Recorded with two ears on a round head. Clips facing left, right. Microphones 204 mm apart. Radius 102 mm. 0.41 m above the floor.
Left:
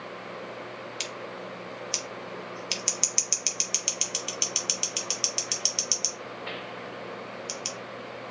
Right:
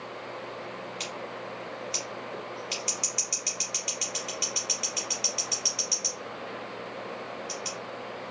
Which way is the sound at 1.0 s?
60° left (ahead or behind).